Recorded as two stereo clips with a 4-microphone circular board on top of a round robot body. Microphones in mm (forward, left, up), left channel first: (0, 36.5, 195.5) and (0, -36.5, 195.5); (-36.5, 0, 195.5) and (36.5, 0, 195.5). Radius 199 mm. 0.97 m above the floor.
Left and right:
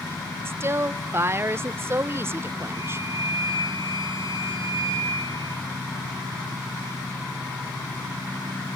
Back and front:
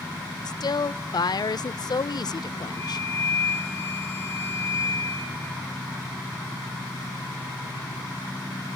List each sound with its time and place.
0.5 s a woman speaking: 150° right, 0.5 m
2.7 s a flute: 120° right, 4.5 m